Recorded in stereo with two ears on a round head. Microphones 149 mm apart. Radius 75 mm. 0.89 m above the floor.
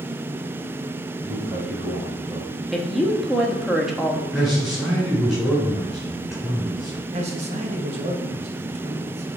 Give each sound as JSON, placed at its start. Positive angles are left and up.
{"t": 1.2, "sound": "a man speaking", "side_deg": -35, "distance_m": 3.0}
{"t": 2.7, "sound": "a woman speaking", "side_deg": 0, "distance_m": 1.1}
{"t": 4.3, "sound": "a man speaking", "side_deg": -5, "distance_m": 3.5}
{"t": 7.1, "sound": "a man speaking", "side_deg": -40, "distance_m": 1.1}